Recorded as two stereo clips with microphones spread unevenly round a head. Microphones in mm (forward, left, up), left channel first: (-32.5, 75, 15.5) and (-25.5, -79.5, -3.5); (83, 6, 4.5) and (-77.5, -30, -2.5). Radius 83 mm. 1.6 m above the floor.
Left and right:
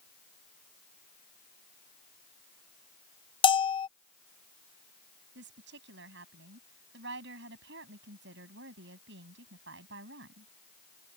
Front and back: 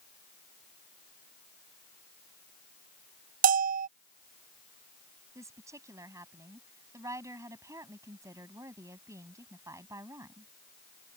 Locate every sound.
3.4 s a bell: 150° left
5.3 s a woman speaking: 95° right